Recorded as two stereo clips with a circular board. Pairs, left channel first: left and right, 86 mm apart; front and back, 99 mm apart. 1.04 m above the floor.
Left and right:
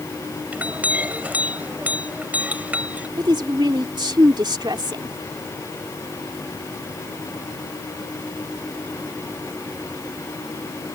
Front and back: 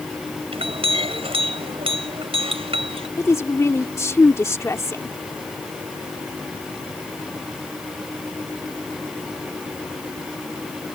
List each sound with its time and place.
0.5 s a clink: 160° right
3.2 s a woman speaking: 60° right